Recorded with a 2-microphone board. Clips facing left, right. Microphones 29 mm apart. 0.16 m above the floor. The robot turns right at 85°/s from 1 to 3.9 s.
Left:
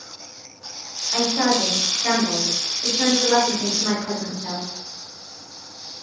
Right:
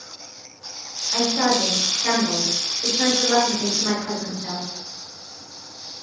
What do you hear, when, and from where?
1.1 s a woman speaking: 125° left, 2.5 m; by 4.7 s straight ahead, 2.5 m